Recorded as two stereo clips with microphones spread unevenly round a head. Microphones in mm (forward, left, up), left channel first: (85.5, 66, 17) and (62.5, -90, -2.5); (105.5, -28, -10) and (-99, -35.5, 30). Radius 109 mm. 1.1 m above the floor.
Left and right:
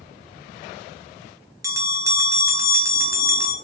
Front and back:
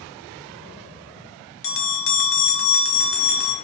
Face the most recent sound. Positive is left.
turn(degrees=-25)